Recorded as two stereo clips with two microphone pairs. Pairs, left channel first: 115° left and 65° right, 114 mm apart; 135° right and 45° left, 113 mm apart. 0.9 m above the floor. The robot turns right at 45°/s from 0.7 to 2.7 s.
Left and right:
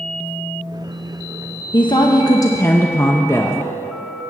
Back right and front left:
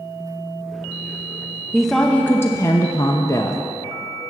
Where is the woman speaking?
135° left, 0.8 m; by 3.6 s straight behind, 0.8 m.